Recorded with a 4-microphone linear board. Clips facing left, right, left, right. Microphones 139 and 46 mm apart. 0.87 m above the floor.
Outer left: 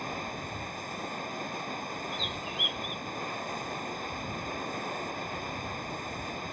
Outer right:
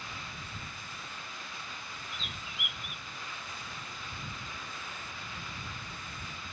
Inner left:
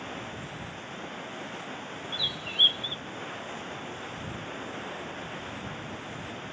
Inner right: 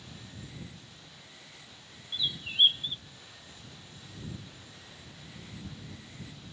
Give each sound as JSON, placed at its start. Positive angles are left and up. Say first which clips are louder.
{"t": 0.0, "sound": "running water", "louder": "outer left 9 dB, inner left 11 dB", "side_deg": 50}
{"t": 2.1, "sound": "a bird", "louder": "outer left 9 dB, even", "side_deg": 0}